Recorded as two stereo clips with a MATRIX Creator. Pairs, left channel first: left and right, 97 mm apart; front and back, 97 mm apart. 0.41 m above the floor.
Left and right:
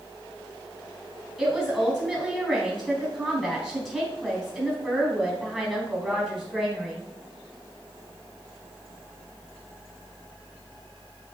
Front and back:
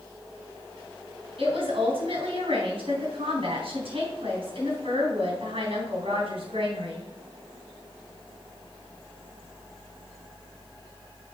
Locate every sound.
1.4 s a woman speaking: 175° left, 3.5 m